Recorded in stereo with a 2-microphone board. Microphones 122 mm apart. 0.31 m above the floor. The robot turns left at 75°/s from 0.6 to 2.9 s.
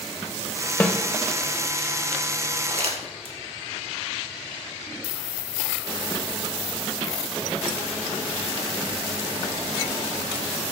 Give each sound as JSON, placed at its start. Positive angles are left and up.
{"t": 0.8, "sound": "a snare drum", "side_deg": 15, "distance_m": 0.8}
{"t": 2.7, "sound": "crumpling", "side_deg": -65, "distance_m": 1.6}